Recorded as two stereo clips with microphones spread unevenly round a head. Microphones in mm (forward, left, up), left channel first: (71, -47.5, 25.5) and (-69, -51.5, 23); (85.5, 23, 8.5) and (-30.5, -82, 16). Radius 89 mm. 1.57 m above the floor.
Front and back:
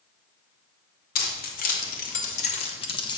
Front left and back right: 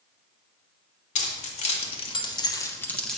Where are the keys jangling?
5° left, 1.3 m; by 3.2 s 50° right, 0.8 m.